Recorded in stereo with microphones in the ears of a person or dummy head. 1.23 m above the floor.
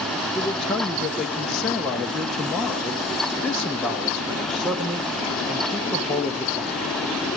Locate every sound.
0.3 s a man speaking: centre (ahead or behind), 1.3 m